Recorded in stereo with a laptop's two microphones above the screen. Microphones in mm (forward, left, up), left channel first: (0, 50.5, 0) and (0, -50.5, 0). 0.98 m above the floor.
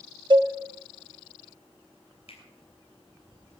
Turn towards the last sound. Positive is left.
turn(degrees=80)